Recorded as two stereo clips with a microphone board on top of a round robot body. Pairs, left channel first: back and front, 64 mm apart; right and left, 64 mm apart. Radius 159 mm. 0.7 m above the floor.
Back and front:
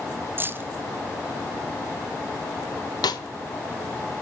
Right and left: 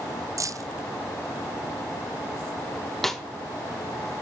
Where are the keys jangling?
55° left, 0.9 m.